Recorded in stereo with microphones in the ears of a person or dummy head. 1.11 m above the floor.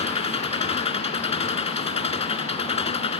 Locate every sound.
0.0 s an engine running: 35° left (ahead or behind)